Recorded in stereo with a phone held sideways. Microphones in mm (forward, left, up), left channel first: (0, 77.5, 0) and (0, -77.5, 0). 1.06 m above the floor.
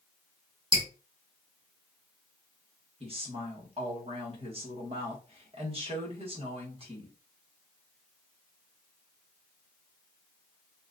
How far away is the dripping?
About 1.0 m.